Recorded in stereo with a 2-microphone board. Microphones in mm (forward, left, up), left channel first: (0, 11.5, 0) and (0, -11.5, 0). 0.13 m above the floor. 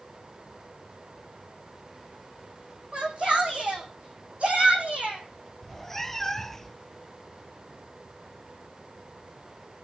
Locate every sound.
2.9 s a shout: 55° right (ahead or behind), 7 m; by 5.2 s 75° right (ahead or behind), 6 m
5.6 s a cat meowing: 15° left (ahead or behind), 0.5 m